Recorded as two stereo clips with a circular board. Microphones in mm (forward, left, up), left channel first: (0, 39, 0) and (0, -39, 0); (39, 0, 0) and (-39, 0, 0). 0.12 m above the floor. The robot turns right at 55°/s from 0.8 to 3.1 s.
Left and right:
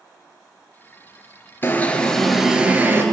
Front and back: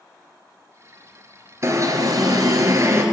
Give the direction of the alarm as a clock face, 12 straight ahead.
7 o'clock.